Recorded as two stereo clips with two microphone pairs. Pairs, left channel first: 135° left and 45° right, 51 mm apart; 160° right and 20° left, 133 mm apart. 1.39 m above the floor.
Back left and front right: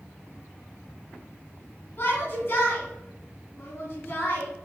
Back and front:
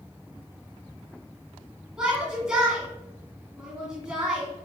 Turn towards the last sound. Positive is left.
turn(degrees=100)